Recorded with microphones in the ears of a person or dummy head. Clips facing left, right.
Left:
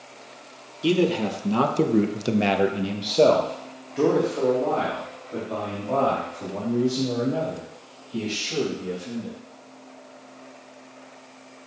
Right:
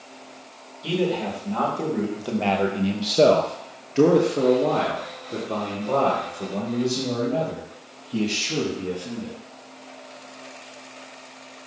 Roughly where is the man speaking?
Left.